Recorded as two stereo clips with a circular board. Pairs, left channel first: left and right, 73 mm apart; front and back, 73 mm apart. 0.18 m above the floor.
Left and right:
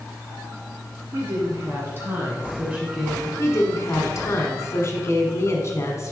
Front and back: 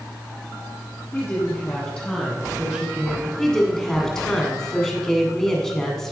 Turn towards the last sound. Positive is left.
turn(degrees=80)